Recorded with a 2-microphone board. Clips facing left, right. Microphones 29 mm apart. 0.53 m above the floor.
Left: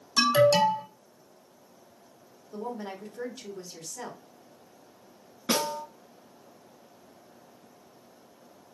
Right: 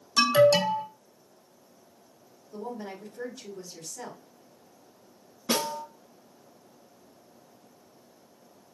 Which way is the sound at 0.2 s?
10° right (ahead or behind).